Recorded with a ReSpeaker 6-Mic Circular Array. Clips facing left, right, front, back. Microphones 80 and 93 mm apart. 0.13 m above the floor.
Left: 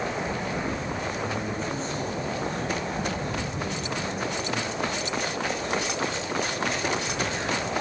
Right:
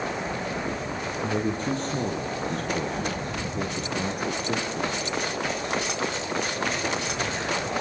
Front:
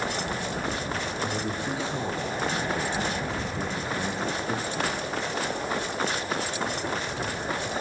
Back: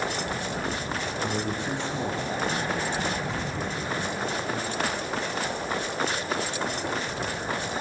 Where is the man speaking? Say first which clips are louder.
Right 3 dB, back 1 dB; 90° right, 5 m; by 5.1 s 50° right, 4 m.